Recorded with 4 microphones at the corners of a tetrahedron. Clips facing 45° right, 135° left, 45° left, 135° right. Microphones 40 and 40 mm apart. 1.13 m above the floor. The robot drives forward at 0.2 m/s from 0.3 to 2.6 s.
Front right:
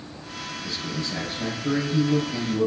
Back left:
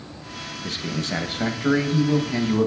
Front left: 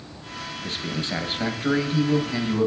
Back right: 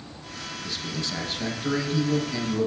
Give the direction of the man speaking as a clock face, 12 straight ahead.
9 o'clock.